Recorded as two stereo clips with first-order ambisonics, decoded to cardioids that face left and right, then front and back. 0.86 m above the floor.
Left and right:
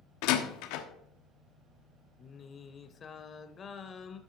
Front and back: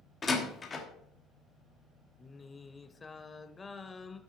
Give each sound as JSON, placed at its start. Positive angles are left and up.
{"t": 0.2, "sound": "a door slam", "azimuth_deg": 75, "distance_m": 1.1}
{"t": 2.2, "sound": "singing", "azimuth_deg": 60, "distance_m": 0.6}